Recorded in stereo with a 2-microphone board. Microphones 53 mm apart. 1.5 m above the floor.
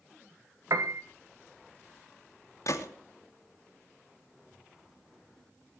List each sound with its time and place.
0.7 s a piano: 80° right, 2.0 m
2.7 s a gunshot: 80° left, 2.5 m